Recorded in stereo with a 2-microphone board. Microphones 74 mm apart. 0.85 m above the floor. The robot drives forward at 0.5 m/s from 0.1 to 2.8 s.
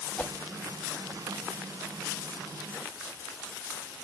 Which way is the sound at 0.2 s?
20° left (ahead or behind).